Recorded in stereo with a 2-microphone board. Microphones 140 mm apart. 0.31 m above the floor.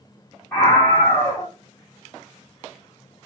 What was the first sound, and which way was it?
A scream, 20° left (ahead or behind).